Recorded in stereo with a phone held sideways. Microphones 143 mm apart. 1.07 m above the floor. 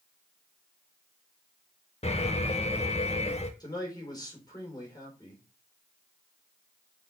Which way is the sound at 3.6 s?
25° left (ahead or behind).